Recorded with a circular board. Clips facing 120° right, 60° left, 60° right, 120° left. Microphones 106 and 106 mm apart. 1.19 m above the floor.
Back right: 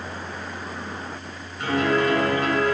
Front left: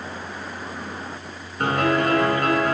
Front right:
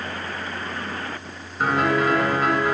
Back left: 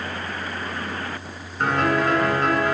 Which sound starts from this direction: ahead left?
A piano, at 1.6 s.